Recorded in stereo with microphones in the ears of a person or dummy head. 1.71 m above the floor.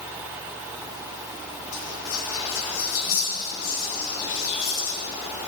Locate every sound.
1.7 s whispering: 80° left, 1.8 m